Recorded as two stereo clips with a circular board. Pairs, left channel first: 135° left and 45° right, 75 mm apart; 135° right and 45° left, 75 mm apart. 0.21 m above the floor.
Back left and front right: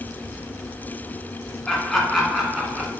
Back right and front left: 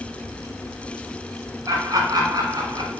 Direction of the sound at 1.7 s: 55° left.